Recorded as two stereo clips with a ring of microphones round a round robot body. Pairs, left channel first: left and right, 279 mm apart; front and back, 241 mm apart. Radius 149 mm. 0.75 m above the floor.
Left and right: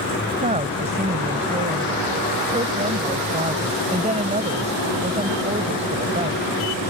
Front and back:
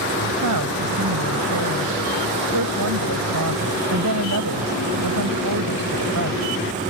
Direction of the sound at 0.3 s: 160° right.